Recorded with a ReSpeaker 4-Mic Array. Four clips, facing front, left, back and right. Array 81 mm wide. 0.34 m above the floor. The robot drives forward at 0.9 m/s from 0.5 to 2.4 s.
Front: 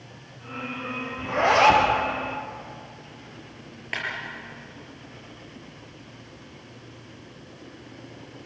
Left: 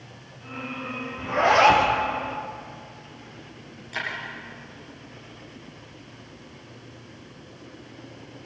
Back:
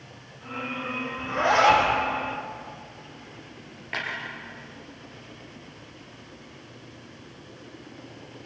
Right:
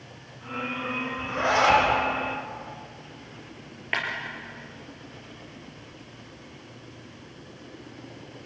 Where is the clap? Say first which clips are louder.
Right 3 dB, even; 80° right, 6 m.